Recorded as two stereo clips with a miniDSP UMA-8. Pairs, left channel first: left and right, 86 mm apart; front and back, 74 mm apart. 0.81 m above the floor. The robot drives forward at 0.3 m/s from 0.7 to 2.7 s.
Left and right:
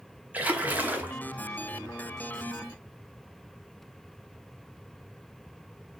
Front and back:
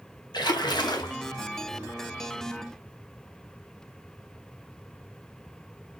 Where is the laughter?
I don't hear laughter.